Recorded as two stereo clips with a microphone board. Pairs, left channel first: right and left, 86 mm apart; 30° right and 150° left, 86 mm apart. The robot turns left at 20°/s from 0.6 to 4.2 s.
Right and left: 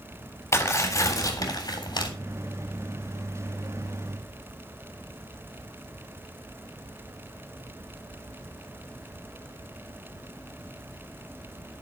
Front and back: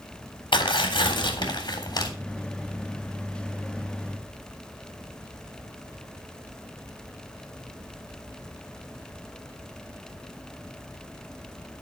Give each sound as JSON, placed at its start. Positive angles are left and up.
{"t": 0.5, "sound": "tearing paper", "azimuth_deg": -35, "distance_m": 3.5}